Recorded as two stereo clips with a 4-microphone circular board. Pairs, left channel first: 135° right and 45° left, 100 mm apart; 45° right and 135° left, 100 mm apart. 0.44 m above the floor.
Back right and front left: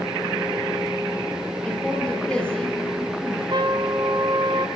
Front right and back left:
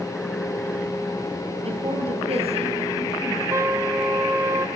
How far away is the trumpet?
About 1.6 m.